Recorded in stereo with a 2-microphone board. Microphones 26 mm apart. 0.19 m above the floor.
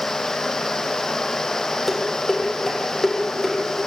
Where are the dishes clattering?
10° left (ahead or behind), 4.5 m.